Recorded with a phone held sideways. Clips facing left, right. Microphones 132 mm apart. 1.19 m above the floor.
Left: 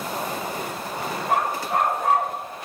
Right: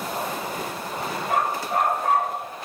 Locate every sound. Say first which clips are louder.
1.3 s a dog barking: left 1 dB; 65° left (ahead or behind), 3.5 m; by 2.4 s 75° left (ahead or behind), 4 m